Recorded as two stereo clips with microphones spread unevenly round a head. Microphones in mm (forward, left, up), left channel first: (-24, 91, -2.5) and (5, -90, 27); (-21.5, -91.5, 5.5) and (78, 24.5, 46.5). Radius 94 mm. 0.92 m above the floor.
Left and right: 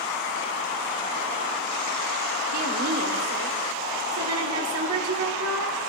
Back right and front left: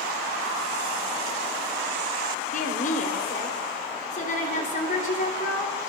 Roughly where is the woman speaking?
Right.